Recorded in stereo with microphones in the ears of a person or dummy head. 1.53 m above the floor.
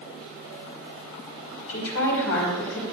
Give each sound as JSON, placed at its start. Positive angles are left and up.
{"t": 1.7, "sound": "a woman speaking", "side_deg": 85, "distance_m": 4.5}